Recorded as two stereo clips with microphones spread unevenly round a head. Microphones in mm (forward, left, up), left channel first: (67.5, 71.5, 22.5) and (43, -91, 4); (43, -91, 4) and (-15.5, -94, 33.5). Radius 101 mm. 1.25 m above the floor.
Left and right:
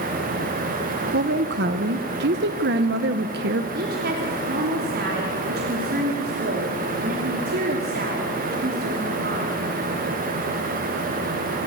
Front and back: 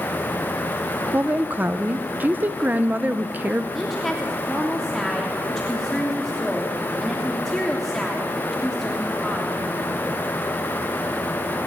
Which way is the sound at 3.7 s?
85° right.